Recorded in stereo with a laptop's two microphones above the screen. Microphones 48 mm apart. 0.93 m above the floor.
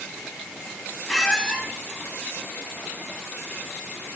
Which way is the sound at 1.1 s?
10° left (ahead or behind).